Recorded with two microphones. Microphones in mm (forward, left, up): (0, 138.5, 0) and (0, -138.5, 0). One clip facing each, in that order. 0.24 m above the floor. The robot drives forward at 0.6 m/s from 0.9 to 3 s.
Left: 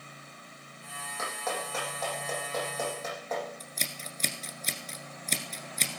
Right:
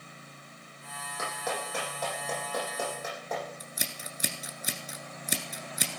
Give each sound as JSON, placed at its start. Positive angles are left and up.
{"t": 1.2, "sound": "a clap", "side_deg": -15, "distance_m": 9.0}
{"t": 3.6, "sound": "scissors", "side_deg": -10, "distance_m": 1.4}